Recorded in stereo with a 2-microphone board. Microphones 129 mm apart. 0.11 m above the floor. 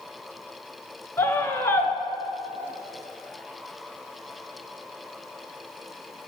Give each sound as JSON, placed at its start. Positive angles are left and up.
{"t": 1.2, "sound": "a scream", "side_deg": 20, "distance_m": 1.3}